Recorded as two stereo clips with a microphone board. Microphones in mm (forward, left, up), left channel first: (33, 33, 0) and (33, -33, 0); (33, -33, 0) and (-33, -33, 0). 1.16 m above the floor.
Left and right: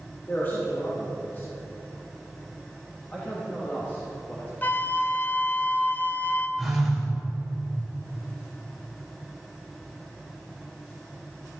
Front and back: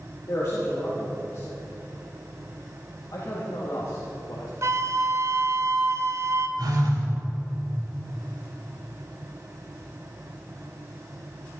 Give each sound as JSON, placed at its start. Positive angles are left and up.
{"t": 0.3, "sound": "a man speaking", "azimuth_deg": 35, "distance_m": 2.5}
{"t": 3.1, "sound": "a man speaking", "azimuth_deg": 20, "distance_m": 2.0}
{"t": 4.6, "sound": "a flute", "azimuth_deg": 145, "distance_m": 0.7}
{"t": 6.6, "sound": "a phone buzzing", "azimuth_deg": 180, "distance_m": 3.0}